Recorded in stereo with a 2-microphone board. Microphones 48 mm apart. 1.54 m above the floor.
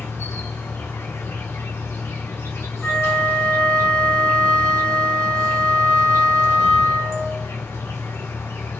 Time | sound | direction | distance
0.0 | an insect | 70° left (ahead or behind) | 1.1 m
2.8 | a flute | 20° left (ahead or behind) | 1.5 m